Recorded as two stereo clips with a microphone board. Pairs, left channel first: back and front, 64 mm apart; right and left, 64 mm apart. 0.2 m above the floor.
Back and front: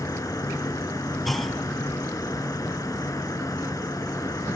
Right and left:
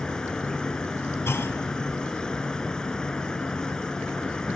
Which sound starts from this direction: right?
A clunk, at 1.2 s.